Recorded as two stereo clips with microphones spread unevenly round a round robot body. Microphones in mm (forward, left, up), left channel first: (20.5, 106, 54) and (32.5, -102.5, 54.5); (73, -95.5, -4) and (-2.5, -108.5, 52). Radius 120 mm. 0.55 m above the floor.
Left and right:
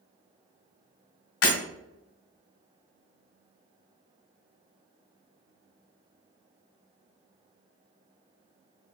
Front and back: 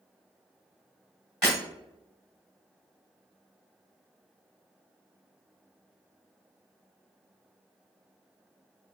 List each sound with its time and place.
1.4 s breaking glass: 90° left, 2 m